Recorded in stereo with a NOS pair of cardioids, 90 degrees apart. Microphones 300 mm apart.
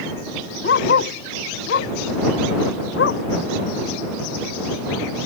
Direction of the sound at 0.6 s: 40° left.